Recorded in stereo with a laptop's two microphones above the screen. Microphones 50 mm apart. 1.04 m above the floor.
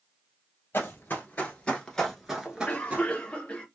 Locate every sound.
0.7 s running footsteps: 45° left (ahead or behind), 1.5 m; by 3.1 s 35° right (ahead or behind), 1.2 m
2.5 s a cough: 25° left (ahead or behind), 0.6 m